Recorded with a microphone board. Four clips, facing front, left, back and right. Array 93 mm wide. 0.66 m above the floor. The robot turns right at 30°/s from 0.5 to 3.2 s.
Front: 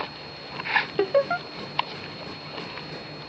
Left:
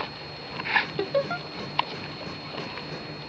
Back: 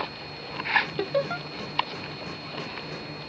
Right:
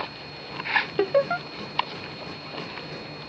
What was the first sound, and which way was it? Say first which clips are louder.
Laughter: right 4 dB, front 5 dB; 50° right.